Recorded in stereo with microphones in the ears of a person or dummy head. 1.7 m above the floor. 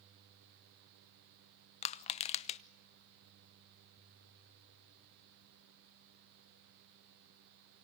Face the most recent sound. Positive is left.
turn(degrees=35)  # may be behind; listen again after turning